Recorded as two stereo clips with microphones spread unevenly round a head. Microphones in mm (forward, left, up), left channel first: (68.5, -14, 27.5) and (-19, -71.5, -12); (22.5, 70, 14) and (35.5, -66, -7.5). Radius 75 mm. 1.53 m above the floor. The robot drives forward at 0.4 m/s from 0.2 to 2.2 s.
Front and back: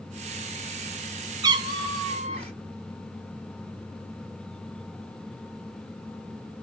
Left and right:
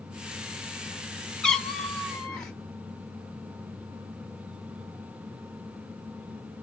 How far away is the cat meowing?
About 0.7 m.